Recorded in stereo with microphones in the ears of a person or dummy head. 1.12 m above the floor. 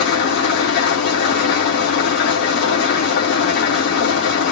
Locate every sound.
0.0 s an engine running: 55° left (ahead or behind), 1.8 m